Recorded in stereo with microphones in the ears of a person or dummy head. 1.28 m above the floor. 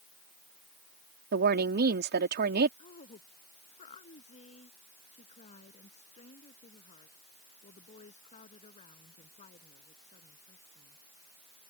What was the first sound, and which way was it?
A woman speaking, 45° right (ahead or behind).